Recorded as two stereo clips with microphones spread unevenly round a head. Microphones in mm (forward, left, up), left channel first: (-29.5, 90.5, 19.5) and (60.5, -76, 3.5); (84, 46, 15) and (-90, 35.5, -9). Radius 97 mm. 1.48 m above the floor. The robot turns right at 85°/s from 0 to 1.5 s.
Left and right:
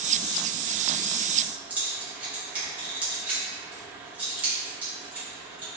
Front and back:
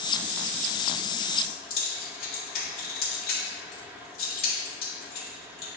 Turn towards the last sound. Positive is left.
turn(degrees=20)